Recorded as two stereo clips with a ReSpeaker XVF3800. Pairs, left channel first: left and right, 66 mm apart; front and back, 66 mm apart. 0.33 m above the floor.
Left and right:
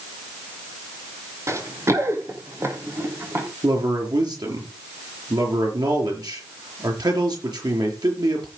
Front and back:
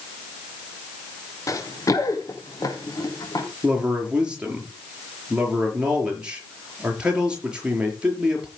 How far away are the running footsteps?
About 2.5 m.